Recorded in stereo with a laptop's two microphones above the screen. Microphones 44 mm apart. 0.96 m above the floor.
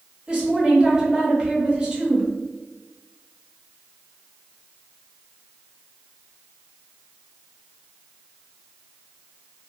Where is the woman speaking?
20° right (ahead or behind), 1.2 m.